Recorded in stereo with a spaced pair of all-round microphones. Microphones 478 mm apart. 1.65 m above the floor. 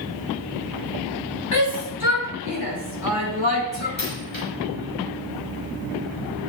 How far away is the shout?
About 4 m.